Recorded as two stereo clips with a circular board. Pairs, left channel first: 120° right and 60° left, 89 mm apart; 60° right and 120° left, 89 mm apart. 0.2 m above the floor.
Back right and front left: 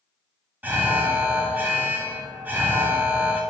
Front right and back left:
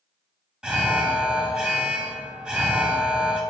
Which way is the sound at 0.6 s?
60° left.